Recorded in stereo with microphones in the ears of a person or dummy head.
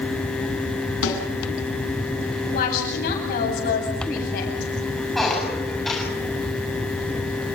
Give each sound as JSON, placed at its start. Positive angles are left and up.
{"t": 1.0, "sound": "a snare drum", "side_deg": 75, "distance_m": 7.5}
{"t": 2.5, "sound": "a woman speaking", "side_deg": 45, "distance_m": 9.5}
{"t": 5.2, "sound": "a squeak", "side_deg": 5, "distance_m": 7.0}